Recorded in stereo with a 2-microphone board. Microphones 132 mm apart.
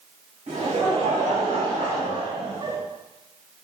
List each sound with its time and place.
0.5 s laughter: 70° right (ahead or behind), 1.8 m; by 2.8 s 40° right (ahead or behind), 1.1 m